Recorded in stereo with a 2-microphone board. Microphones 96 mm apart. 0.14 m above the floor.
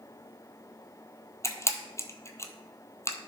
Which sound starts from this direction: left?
A camera shutter, at 1.4 s.